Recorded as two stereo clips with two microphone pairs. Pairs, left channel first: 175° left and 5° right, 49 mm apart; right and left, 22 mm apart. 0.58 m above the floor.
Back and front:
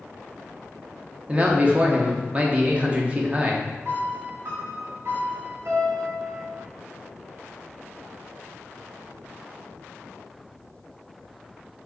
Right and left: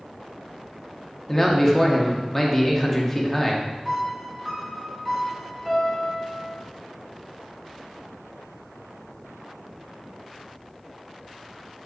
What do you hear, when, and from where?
1.3 s a man speaking: 30° right, 0.6 m
3.9 s a piano: straight ahead, 1.7 m